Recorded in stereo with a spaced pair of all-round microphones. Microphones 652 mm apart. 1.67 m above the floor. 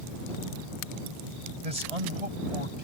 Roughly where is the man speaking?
Right.